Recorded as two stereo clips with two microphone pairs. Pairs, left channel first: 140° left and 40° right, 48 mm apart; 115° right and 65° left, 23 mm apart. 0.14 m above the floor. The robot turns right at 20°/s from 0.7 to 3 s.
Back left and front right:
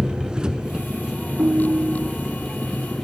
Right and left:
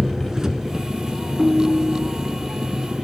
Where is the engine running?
20° left, 1.6 m; by 3.0 s 70° left, 1.6 m.